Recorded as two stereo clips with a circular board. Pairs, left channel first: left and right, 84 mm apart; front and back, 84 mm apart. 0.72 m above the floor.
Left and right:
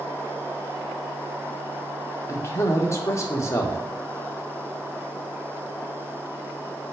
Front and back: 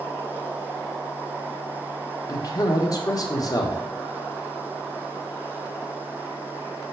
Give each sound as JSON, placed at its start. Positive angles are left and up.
{"t": 2.3, "sound": "a man speaking", "azimuth_deg": 40, "distance_m": 1.6}